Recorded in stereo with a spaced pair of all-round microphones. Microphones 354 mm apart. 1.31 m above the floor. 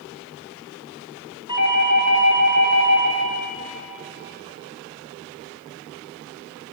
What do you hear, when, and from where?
1.5 s a doorbell: 55° left (ahead or behind), 2 m